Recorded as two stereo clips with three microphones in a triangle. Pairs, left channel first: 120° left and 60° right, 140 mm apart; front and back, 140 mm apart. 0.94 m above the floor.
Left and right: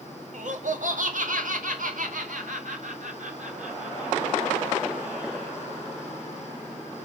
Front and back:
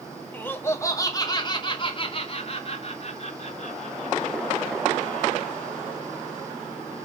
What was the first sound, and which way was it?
Laughter, 75° right.